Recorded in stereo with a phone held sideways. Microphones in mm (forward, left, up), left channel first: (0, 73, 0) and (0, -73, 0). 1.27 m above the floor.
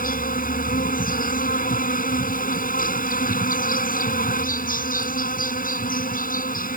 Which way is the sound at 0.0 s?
75° left (ahead or behind).